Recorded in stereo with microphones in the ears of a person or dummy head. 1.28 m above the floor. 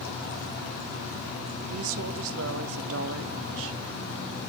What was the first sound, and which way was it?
A woman speaking, 80° right.